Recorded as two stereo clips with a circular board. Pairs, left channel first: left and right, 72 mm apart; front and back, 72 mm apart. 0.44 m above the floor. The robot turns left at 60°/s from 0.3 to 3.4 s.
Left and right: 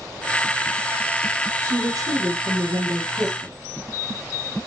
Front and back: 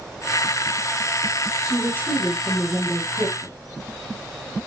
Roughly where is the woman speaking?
Ahead right.